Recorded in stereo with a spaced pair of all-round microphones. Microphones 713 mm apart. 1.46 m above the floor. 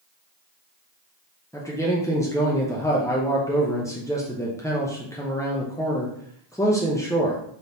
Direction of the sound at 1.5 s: 5° left (ahead or behind).